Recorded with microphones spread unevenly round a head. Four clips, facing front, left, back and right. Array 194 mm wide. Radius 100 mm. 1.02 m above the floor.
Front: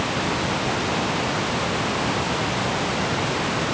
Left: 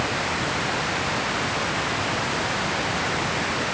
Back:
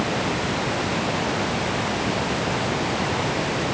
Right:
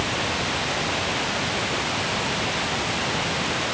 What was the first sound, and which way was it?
Only background noise.